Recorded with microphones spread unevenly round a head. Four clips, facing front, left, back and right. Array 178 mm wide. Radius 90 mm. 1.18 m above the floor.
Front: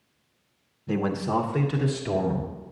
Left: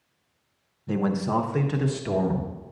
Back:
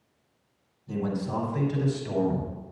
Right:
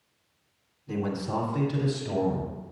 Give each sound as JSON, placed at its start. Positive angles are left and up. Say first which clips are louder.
{"t": 0.9, "sound": "a man speaking", "louder": "left 5 dB, front 4 dB", "azimuth_deg": 35, "distance_m": 0.9}